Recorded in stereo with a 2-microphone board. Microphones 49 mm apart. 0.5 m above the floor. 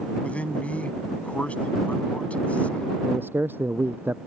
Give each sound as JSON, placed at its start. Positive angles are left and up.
{"t": 0.2, "sound": "a man speaking", "side_deg": 30}
{"t": 3.0, "sound": "a man speaking", "side_deg": -45}